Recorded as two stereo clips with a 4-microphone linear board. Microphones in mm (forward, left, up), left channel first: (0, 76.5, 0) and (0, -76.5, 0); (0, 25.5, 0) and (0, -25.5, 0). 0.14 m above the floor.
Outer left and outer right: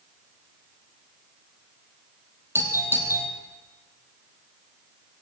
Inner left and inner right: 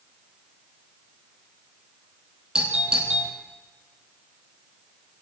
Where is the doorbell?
15° right (ahead or behind), 5.5 m.